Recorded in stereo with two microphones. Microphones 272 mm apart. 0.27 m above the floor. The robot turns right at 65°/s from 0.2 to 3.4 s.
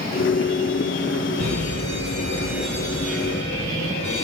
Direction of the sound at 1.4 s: 80° right.